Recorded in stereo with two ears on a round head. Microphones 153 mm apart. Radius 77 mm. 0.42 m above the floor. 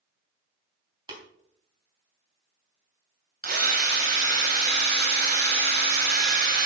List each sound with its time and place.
1.1 s tapping: 25° right (ahead or behind), 3.5 m
3.4 s a drill: 55° right (ahead or behind), 3 m